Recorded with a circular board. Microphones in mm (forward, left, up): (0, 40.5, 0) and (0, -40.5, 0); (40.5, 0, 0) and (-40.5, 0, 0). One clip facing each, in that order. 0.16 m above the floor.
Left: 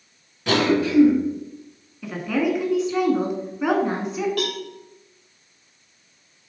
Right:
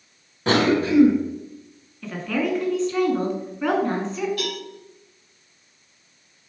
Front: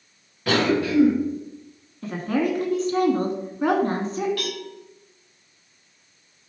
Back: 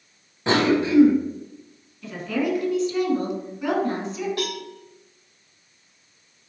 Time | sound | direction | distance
0.5 | a cough | 125° right | 1.6 m
2.0 | a woman speaking | 10° left | 1.5 m
4.4 | a cowbell | 115° left | 2.5 m